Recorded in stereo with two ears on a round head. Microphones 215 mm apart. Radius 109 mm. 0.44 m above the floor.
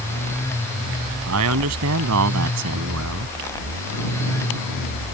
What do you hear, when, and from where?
1.3 s a man speaking: 75° right (ahead or behind)